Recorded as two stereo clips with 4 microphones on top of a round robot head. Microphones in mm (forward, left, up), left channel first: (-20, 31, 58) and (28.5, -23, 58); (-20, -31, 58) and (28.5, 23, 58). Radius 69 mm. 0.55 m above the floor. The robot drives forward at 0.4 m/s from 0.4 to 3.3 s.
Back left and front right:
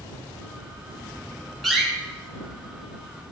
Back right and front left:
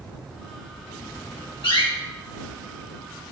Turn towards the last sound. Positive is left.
turn(degrees=-145)